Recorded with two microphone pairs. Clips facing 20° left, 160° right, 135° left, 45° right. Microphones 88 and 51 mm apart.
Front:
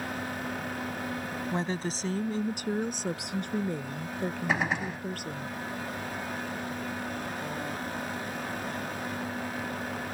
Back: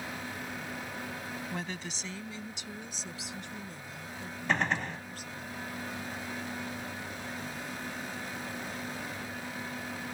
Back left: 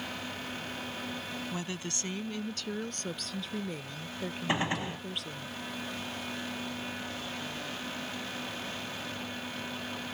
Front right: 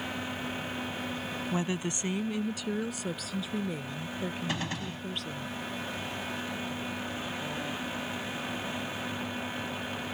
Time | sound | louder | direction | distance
1.5 | a woman speaking | front 7 dB, front right 6 dB | straight ahead | ?
4.5 | a gunshot | back 2 dB, back left 3 dB | 90° left | ?